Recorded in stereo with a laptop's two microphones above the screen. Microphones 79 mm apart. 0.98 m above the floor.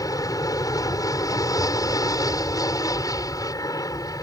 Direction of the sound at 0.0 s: 50° left (ahead or behind).